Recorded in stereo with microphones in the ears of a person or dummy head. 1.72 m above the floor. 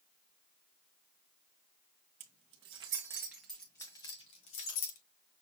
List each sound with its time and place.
2.2 s keys jangling: 35° right (ahead or behind), 1.1 m; by 5.0 s 45° left (ahead or behind), 1.1 m